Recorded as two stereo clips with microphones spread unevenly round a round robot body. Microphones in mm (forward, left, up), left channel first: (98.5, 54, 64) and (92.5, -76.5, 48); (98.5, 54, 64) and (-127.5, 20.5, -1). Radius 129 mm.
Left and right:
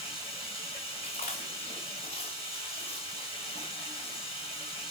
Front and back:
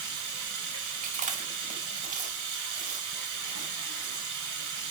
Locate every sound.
0.0 s running water: 175° right, 1.7 m
1.0 s chewing: 125° left, 0.7 m